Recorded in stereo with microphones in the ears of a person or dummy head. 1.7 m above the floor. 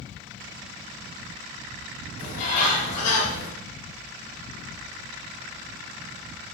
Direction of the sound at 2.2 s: 45° left (ahead or behind).